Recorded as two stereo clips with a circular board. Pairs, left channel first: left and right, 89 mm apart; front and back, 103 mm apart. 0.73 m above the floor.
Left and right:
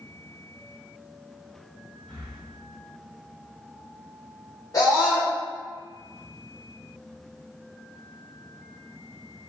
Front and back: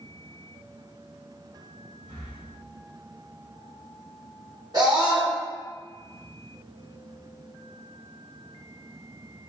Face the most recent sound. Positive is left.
turn(degrees=135)